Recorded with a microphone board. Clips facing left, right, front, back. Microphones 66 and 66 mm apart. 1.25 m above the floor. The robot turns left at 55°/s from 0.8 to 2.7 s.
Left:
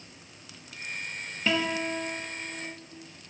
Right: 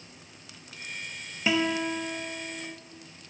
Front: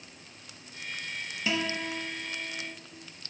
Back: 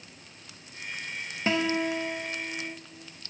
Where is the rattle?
I don't hear a rattle.